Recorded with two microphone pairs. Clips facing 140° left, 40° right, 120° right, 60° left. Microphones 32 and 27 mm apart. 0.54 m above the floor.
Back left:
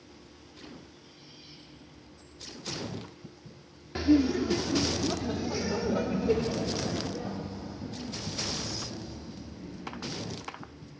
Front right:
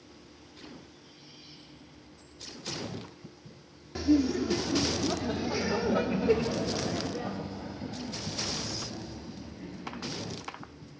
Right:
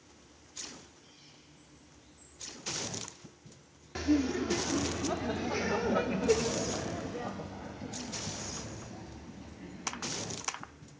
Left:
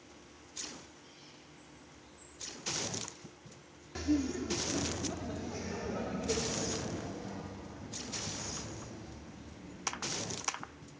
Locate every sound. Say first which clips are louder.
4.0 s laughter: back left 2 dB, right 4 dB; 175° left, 0.7 m; by 10.3 s 90° right, 4 m